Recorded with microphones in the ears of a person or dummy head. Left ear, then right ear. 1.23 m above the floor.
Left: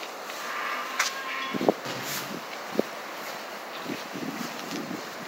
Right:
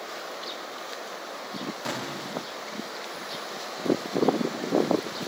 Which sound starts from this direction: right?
An explosion, at 1.9 s.